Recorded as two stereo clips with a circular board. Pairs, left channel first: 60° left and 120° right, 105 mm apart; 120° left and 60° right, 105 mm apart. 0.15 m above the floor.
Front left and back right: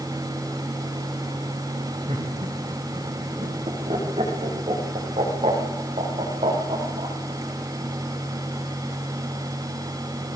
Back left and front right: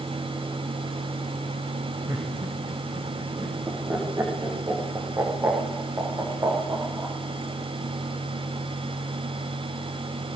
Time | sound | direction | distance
2.1 | laughter | 120° right | 7 m